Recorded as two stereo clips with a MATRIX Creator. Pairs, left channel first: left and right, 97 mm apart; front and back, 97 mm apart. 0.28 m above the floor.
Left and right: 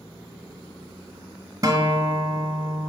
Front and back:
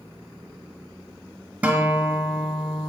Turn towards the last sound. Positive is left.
turn(degrees=-110)